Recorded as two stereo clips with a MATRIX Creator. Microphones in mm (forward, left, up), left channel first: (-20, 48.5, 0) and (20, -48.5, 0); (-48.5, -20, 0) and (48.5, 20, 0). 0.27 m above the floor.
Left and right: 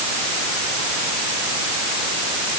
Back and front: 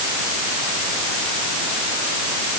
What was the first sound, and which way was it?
Only background noise.